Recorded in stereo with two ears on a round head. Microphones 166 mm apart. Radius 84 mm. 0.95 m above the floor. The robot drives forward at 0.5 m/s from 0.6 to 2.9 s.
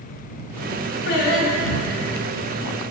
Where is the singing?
65° left (ahead or behind), 0.8 m; by 2.1 s 40° left (ahead or behind), 1.1 m.